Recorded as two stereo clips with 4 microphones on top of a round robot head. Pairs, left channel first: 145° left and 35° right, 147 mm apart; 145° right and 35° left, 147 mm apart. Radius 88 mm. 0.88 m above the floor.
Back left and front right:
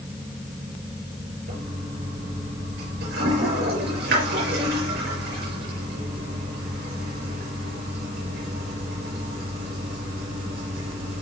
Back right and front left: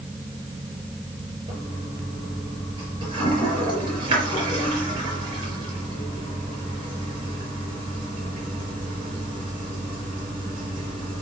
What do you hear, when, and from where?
1.5 s a toilet flushing: 25° right, 5 m